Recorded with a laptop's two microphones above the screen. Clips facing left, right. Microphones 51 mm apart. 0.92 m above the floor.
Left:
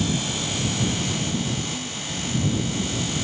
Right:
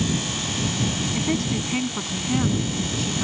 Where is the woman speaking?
70° right (ahead or behind); by 3.2 s 75° right (ahead or behind).